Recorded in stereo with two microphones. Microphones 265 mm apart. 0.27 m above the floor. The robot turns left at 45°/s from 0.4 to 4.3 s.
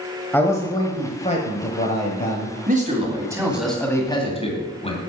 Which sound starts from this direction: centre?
A man speaking, at 0.3 s.